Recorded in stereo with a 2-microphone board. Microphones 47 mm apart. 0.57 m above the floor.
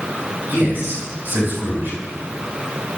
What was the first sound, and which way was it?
A man speaking, 45° right (ahead or behind).